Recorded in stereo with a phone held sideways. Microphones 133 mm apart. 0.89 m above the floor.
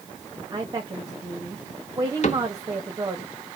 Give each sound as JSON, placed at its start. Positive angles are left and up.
{"t": 0.5, "sound": "a woman speaking", "side_deg": -30, "distance_m": 1.3}
{"t": 2.2, "sound": "a cupboard door", "side_deg": 60, "distance_m": 0.9}